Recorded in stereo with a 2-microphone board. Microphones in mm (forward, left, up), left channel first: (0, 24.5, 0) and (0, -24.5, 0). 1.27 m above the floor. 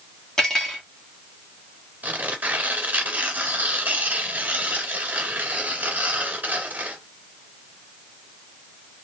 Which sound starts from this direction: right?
Tearing paper, at 2.0 s.